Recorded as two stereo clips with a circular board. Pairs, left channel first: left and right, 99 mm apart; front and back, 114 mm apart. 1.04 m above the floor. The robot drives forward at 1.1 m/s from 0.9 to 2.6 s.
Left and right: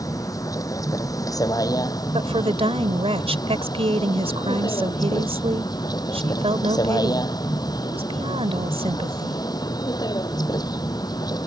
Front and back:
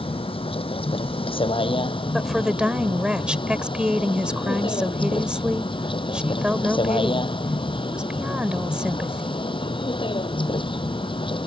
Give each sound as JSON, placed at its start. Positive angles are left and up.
{"t": 0.0, "sound": "a vehicle", "azimuth_deg": 35}
{"t": 2.1, "sound": "a woman speaking", "azimuth_deg": -90}